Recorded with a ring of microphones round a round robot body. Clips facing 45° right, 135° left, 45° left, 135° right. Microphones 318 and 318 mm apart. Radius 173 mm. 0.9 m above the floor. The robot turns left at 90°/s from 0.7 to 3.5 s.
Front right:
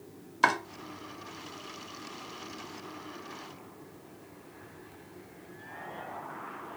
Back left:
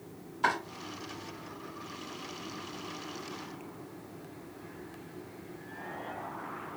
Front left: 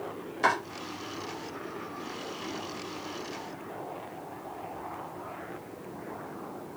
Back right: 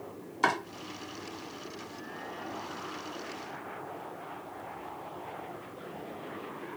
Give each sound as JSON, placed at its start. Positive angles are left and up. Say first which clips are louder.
{"t": 0.4, "sound": "chopping", "louder": "front right 3 dB, front left 1 dB", "azimuth_deg": -65, "distance_m": 0.7}